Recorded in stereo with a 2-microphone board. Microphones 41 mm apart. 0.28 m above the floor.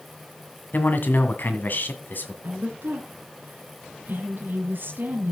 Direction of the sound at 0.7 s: 55° left (ahead or behind).